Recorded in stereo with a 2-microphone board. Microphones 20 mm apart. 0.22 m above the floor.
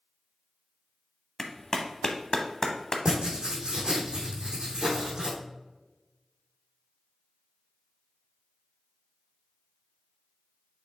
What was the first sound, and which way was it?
A clap, 30° left (ahead or behind).